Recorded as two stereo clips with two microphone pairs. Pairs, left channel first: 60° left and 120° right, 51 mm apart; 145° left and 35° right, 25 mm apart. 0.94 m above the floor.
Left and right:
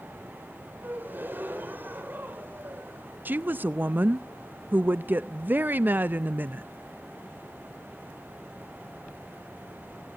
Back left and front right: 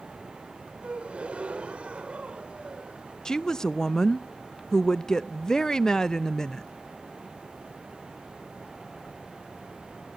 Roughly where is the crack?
I don't hear a crack.